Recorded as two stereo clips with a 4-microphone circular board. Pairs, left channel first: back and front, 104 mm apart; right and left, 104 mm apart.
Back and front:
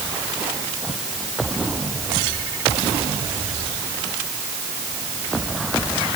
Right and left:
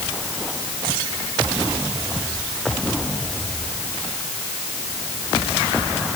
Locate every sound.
Only background noise.